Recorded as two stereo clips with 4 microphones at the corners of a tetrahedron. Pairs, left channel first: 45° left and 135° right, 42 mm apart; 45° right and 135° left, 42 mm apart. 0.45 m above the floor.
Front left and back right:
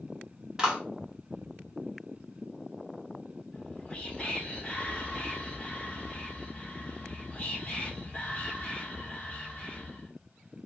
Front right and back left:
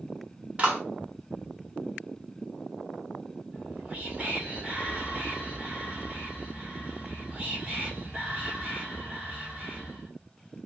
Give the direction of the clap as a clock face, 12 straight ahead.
6 o'clock.